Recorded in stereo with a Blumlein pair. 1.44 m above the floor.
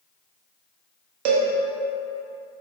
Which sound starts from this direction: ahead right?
A cowbell, at 1.2 s.